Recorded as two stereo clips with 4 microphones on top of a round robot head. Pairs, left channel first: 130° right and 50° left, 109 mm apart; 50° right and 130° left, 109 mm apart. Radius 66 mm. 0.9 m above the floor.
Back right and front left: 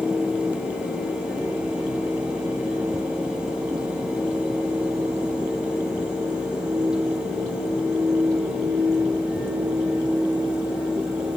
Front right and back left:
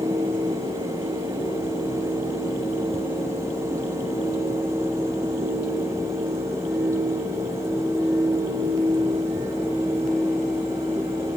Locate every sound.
Only background noise.